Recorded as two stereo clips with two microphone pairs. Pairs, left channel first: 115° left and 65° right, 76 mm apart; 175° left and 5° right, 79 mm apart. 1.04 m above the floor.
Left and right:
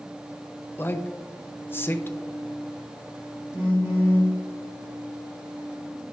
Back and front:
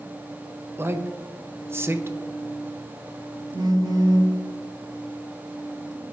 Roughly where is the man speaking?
Ahead left.